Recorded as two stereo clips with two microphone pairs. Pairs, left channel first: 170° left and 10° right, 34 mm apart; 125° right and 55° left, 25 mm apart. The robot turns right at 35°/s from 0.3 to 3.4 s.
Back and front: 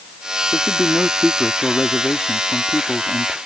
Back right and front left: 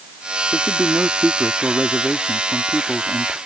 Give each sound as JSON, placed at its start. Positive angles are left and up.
{"t": 0.5, "sound": "a man speaking", "azimuth_deg": 60}